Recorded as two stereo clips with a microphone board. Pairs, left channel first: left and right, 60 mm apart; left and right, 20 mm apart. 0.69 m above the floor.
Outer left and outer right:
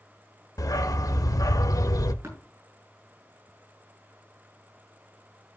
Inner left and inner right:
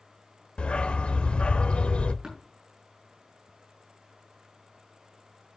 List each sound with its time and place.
0.6 s a dog barking: 75° left (ahead or behind), 0.8 m
2.2 s tapping: 50° right (ahead or behind), 6 m